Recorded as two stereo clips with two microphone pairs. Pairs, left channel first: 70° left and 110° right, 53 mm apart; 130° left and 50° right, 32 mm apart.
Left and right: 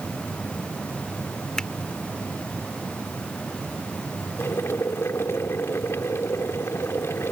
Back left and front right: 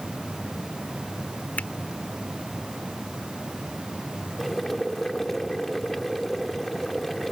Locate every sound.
1.6 s a finger snap: 150° left
4.4 s boiling: 50° left